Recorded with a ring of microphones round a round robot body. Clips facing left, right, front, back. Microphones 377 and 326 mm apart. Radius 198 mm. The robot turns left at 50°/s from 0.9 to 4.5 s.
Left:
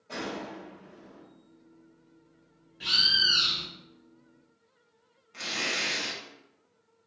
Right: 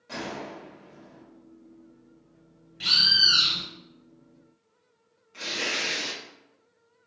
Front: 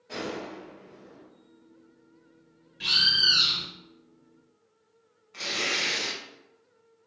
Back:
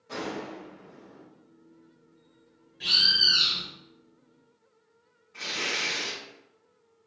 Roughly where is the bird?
Ahead right.